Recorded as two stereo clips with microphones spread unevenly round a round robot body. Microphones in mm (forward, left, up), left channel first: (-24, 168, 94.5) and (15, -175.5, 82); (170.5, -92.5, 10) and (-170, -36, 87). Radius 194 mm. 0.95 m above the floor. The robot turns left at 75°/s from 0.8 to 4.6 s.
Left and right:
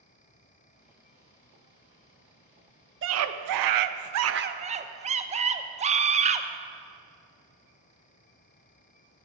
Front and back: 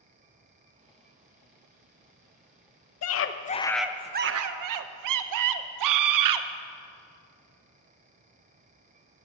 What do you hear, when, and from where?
3.0 s a scream: 30° right, 0.6 m; by 6.5 s 150° right, 0.6 m